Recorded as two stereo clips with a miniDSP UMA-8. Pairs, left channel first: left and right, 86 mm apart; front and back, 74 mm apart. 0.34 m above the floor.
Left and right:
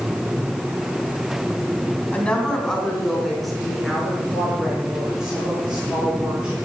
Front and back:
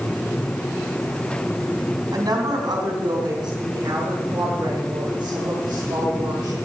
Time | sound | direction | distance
2.1 | a woman speaking | 165° left | 2.5 m